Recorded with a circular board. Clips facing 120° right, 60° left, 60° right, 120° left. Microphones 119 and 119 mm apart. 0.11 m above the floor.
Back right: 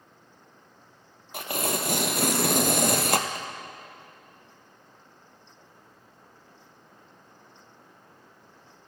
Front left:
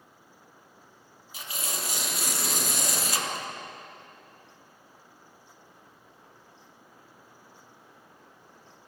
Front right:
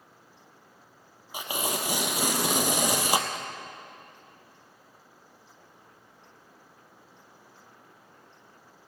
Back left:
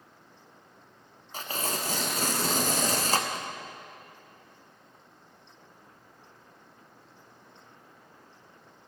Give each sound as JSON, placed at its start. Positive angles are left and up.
{"t": 1.3, "sound": "tearing paper", "azimuth_deg": -135, "distance_m": 0.9}